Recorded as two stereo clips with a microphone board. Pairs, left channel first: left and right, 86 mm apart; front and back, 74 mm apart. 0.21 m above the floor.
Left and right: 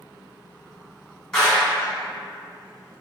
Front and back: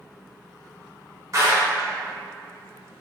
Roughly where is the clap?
Behind.